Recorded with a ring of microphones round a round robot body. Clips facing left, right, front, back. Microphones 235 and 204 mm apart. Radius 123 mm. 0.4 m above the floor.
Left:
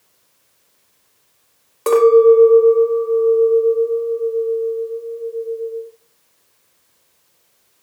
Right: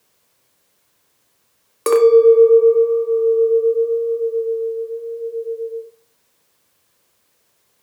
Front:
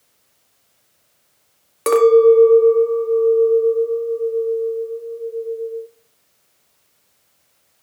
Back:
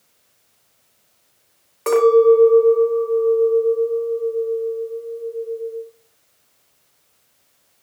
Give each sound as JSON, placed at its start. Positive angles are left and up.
{"t": 1.9, "sound": "a clink", "azimuth_deg": -35, "distance_m": 0.6}